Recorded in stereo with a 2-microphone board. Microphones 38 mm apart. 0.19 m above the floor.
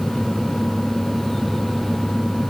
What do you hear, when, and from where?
Only background noise.